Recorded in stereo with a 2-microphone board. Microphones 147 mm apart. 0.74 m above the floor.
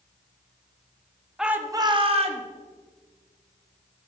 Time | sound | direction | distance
1.4 | a shout | 5° right (ahead or behind) | 0.8 m